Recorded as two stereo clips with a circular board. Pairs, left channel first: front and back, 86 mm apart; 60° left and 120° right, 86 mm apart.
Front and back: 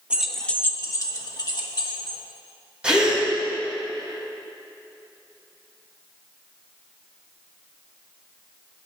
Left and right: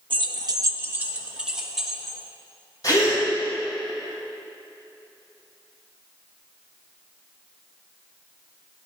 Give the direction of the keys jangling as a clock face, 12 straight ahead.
3 o'clock.